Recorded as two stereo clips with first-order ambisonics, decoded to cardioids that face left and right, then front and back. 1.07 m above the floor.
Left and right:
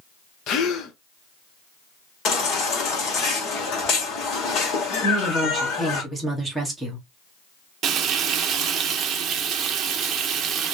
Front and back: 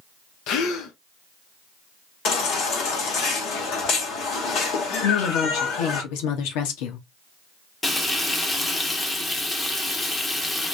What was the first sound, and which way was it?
A gasp, 40° left.